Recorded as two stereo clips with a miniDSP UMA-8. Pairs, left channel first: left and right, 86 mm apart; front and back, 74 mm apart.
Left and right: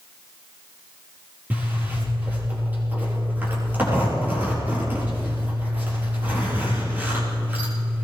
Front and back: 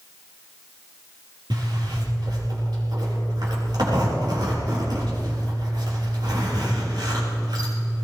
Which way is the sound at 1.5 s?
160° right.